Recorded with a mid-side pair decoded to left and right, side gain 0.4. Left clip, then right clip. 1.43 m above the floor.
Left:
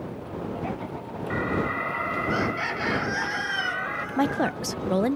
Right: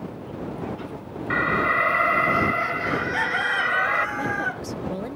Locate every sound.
1.3 s an alarm: 60° right
4.2 s a woman speaking: 65° left